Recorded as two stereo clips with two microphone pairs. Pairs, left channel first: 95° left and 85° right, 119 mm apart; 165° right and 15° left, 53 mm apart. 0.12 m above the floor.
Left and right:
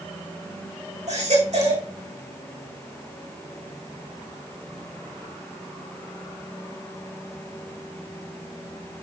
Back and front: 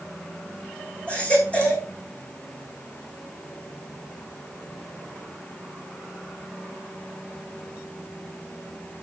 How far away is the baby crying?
About 6 m.